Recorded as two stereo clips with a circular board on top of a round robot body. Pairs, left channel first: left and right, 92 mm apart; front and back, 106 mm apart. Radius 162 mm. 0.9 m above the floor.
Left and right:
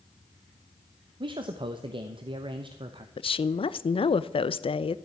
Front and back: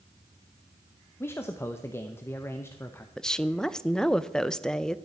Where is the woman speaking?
85° left, 0.6 m.